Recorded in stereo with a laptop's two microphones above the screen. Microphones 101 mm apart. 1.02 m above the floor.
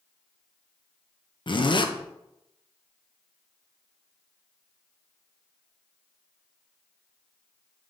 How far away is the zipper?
About 0.6 m.